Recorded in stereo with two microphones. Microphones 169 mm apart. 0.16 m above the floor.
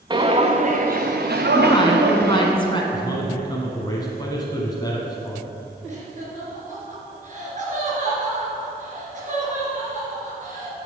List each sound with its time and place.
0.1 s footsteps: 25° right (ahead or behind), 1.1 m; by 2.5 s 75° right (ahead or behind), 1.5 m
1.5 s a woman speaking: 30° left (ahead or behind), 1.3 m
2.9 s a man speaking: 25° left (ahead or behind), 1.1 m
5.9 s laughter: 50° right (ahead or behind), 3 m